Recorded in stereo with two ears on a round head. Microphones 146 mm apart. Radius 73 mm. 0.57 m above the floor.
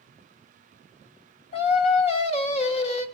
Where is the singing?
40° left (ahead or behind), 1.2 m.